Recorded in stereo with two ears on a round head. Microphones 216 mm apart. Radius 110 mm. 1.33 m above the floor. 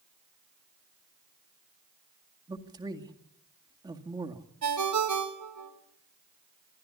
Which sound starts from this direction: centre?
A man speaking, at 2.5 s.